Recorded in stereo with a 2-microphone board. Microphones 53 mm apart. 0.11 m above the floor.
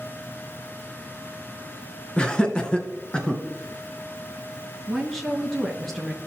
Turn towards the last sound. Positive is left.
turn(degrees=5)  # may be behind; listen again after turning